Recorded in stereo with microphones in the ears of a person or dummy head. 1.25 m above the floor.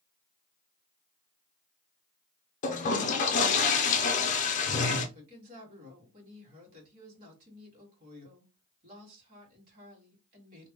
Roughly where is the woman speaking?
Right.